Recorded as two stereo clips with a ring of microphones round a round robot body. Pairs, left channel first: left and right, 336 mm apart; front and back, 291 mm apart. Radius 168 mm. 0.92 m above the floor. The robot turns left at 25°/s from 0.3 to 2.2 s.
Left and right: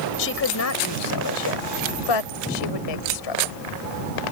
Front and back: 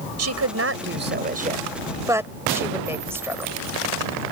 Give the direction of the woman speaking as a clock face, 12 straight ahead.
7 o'clock.